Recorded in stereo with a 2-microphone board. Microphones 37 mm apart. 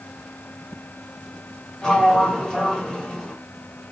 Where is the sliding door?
15° left (ahead or behind), 1.7 m.